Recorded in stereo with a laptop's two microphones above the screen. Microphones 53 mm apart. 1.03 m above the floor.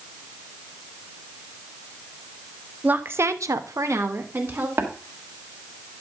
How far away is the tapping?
About 1.3 m.